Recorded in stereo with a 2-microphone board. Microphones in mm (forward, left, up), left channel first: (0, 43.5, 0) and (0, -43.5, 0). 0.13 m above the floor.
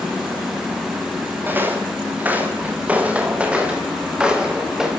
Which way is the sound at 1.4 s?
20° right (ahead or behind).